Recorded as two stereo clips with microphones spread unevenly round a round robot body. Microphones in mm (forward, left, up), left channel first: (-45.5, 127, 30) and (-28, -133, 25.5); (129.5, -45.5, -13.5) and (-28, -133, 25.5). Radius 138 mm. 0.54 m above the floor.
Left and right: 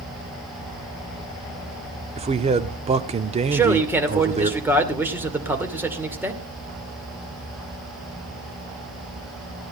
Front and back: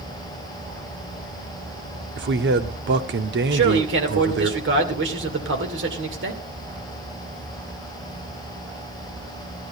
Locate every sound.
2.2 s a man speaking: 145° right, 1.1 m
3.5 s a man speaking: 165° right, 2.5 m